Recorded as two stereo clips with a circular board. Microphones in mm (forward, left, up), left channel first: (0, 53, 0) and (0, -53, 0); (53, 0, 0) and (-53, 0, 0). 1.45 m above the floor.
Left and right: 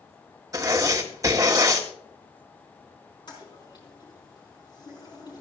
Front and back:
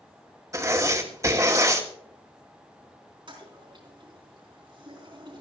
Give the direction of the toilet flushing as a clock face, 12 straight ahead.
7 o'clock.